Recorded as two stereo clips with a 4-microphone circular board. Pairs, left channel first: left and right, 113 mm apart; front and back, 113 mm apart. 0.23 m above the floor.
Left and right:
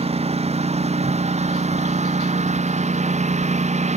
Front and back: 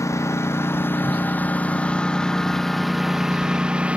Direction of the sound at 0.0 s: 65° right.